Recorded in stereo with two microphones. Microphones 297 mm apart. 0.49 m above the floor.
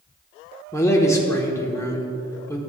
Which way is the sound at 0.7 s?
10° left (ahead or behind).